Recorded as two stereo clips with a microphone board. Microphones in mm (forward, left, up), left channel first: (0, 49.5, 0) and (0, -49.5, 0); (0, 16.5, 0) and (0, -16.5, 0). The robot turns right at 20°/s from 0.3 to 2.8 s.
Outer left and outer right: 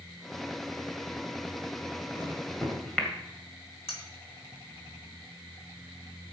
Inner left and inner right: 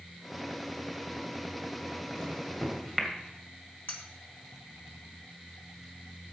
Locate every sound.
2.1 s a microwave: 15° left (ahead or behind), 2 m; by 3.1 s 5° left (ahead or behind), 2 m
3.9 s cutlery clinking: 85° left, 2.5 m